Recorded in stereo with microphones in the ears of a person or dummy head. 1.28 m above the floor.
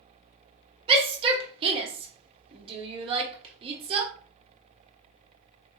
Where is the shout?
30° right (ahead or behind), 1.0 m.